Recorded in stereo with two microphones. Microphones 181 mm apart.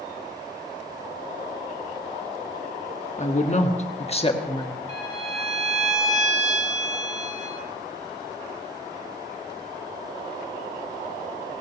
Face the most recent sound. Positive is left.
turn(degrees=-40)  # may be behind; listen again after turning